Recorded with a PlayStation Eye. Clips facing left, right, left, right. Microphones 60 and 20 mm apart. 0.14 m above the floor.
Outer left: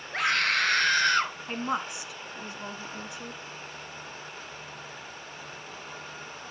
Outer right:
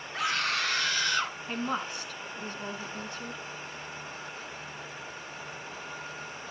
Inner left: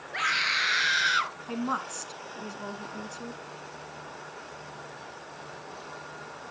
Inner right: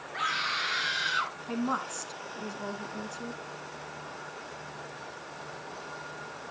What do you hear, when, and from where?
0.1 s a scream: 55° left (ahead or behind), 3 m; by 1.4 s 45° left (ahead or behind), 2 m
1.5 s a woman speaking: 15° left (ahead or behind), 1.2 m